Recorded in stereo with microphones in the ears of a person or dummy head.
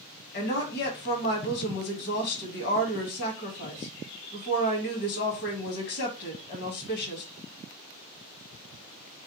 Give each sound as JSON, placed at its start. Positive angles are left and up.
{"t": 0.3, "sound": "a woman speaking", "side_deg": 65, "distance_m": 1.4}